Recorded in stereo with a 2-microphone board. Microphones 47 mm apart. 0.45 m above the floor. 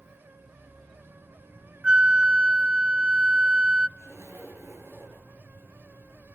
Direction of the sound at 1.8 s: 25° right (ahead or behind).